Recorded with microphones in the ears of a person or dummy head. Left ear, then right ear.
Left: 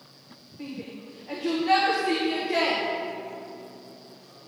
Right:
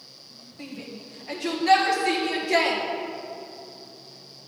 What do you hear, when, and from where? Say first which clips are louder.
0.6 s a shout: even; 50° right (ahead or behind), 1.5 m